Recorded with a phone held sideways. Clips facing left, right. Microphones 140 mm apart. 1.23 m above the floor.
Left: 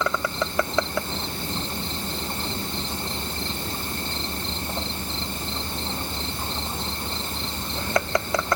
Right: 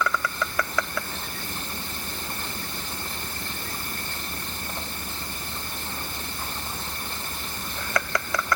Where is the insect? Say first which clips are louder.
Left 2 dB; 25° left (ahead or behind).